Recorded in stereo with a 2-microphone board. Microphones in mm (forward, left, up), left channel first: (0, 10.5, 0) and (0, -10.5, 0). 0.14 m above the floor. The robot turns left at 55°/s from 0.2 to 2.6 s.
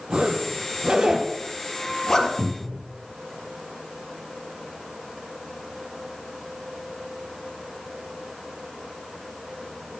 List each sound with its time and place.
0.1 s a zipper: 65° right (ahead or behind), 3 m; by 2.3 s 25° left (ahead or behind), 3 m
2.4 s a cupboard door: 65° right (ahead or behind), 3.5 m